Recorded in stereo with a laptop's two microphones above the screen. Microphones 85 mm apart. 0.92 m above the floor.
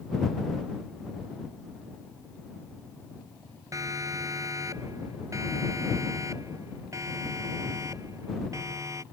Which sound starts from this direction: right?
A siren, at 3.7 s.